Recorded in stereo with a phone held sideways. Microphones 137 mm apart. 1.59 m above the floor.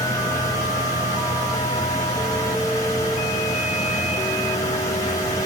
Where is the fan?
25° left (ahead or behind), 1.4 m.